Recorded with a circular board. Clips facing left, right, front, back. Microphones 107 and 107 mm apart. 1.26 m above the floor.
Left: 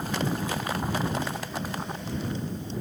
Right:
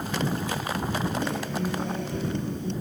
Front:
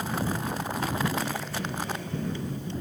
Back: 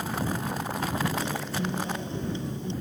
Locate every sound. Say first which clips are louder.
1.2 s a guitar: right 4 dB, back 2 dB; 110° right